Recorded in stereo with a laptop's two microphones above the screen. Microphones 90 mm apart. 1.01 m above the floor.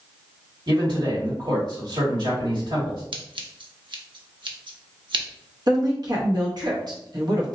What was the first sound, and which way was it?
A man speaking, 55° right (ahead or behind).